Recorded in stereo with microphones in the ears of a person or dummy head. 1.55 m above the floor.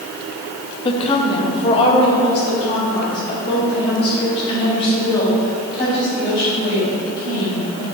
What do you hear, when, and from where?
0.8 s a woman speaking: 25° left (ahead or behind), 0.8 m; by 7.8 s 30° left (ahead or behind), 8 m